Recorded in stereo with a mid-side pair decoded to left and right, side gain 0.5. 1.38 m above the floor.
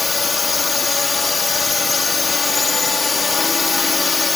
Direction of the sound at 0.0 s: 30° left.